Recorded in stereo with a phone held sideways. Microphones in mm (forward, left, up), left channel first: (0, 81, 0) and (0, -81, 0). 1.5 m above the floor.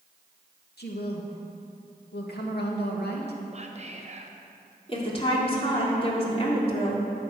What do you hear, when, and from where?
0.8 s a woman speaking: 85° left, 2 m
3.5 s whispering: 45° right (ahead or behind), 1.1 m
4.9 s a woman speaking: 35° left (ahead or behind), 3.5 m